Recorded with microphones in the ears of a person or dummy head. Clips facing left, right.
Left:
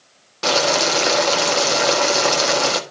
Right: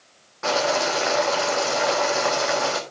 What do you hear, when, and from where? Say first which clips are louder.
0.4 s boiling: left 3 dB; 45° left (ahead or behind), 1.6 m